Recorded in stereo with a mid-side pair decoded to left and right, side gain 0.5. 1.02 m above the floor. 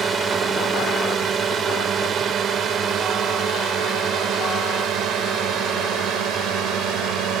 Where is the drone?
45° right; by 7.4 s 80° right.